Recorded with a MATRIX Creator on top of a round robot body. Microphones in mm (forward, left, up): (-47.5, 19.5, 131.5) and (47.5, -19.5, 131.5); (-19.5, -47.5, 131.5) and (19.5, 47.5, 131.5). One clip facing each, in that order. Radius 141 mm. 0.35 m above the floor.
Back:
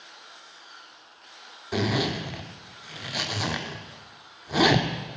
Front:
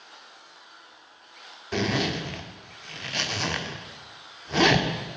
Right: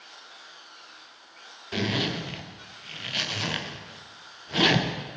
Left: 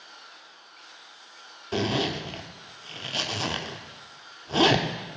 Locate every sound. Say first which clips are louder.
1.7 s a zipper: even, left 2 dB; 80° left, 1.4 m